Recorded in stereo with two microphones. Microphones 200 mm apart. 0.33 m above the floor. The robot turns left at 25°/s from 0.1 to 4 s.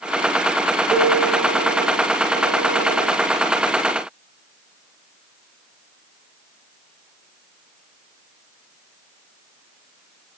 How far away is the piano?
About 2.5 m.